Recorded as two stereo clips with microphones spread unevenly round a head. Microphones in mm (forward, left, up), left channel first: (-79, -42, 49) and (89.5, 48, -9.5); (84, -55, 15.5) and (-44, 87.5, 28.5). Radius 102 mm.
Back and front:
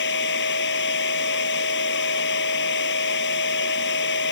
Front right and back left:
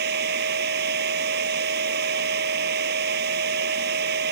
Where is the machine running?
175° left.